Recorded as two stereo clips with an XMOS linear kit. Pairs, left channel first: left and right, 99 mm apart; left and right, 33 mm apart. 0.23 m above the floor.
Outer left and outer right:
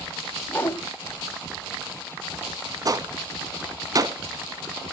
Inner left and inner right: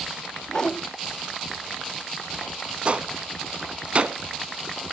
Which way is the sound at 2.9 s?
40° right (ahead or behind).